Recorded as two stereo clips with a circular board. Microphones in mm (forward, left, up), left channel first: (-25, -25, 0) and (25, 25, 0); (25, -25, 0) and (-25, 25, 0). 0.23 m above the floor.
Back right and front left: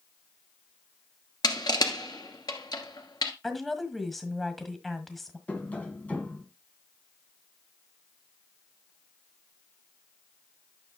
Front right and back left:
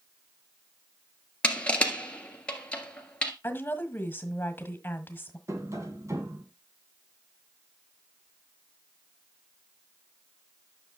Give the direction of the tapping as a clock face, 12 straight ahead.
7 o'clock.